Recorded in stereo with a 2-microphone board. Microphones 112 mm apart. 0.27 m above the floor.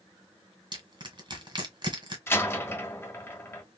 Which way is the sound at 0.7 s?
45° right (ahead or behind).